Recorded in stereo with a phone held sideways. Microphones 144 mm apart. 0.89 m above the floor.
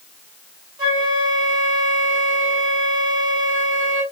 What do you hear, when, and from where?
0.8 s a flute: 30° right (ahead or behind), 1.3 m